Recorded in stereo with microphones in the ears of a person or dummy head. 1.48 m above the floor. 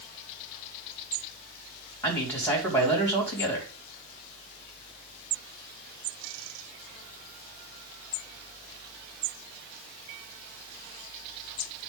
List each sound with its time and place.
2.0 s a man speaking: 10° left (ahead or behind), 3 m